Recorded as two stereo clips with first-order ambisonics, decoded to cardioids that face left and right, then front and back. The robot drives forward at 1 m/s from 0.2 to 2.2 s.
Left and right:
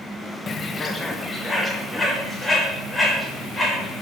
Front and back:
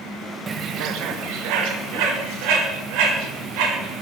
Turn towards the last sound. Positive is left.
turn(degrees=175)